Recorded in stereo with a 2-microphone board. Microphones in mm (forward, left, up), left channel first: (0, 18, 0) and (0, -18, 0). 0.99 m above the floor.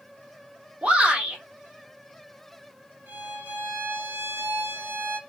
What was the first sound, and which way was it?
A shout, 35° right (ahead or behind).